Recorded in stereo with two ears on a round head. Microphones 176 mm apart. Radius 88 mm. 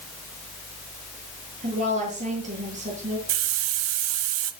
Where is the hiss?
80° right, 1.3 m.